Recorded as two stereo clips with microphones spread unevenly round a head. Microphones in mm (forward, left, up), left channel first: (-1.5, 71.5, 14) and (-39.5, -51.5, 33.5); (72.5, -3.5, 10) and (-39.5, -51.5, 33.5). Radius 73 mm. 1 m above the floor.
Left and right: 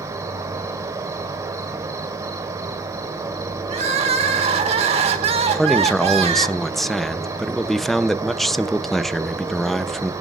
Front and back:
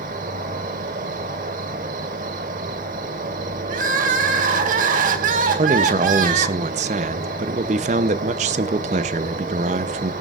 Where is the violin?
No violin in this recording.